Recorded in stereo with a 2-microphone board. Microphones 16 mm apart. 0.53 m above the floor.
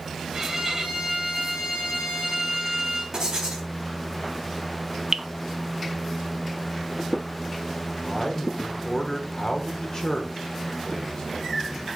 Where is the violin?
25° right (ahead or behind), 2.5 m.